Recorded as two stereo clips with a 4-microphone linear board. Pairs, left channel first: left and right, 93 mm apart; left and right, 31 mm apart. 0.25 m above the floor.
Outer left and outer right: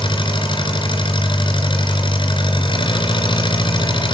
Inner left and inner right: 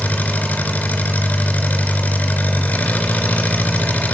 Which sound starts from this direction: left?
An engine running, at 0.0 s.